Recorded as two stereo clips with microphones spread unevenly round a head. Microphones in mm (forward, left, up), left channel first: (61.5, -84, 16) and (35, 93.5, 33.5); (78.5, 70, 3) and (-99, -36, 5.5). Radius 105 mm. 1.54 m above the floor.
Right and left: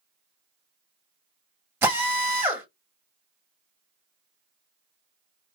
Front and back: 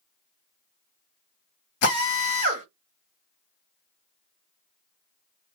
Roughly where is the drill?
Ahead left.